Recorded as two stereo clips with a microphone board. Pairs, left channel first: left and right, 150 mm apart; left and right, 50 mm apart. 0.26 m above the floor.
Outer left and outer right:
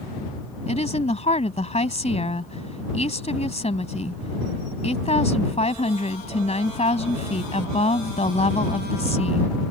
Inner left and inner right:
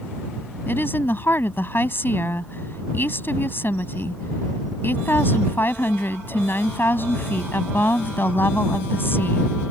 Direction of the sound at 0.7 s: 45° left (ahead or behind).